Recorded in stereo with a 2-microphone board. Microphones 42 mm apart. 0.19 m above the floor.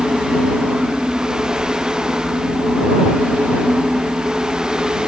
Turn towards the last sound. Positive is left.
No sound to turn to.